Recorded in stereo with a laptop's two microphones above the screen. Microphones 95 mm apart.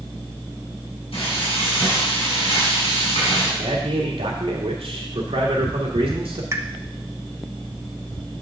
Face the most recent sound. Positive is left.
turn(degrees=-30)  # may be behind; listen again after turning